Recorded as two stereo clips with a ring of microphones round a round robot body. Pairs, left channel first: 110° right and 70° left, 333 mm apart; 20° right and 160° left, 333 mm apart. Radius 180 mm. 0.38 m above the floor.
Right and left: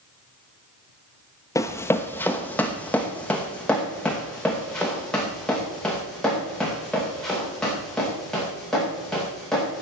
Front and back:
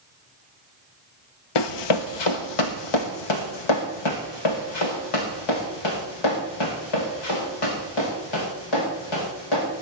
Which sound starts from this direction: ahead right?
Running footsteps, at 1.6 s.